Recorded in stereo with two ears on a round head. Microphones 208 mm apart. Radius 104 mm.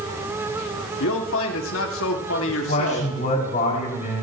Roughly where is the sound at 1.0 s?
Left.